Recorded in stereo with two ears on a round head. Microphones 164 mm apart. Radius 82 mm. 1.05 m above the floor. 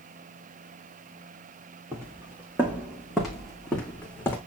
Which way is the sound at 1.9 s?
15° right (ahead or behind).